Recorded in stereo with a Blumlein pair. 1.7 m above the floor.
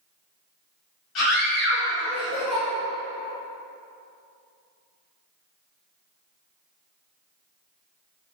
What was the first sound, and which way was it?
A scream, 35° left.